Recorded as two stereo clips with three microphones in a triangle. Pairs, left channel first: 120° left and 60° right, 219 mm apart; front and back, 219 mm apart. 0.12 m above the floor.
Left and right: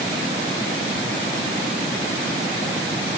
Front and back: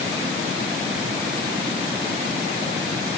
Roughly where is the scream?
I don't hear a scream.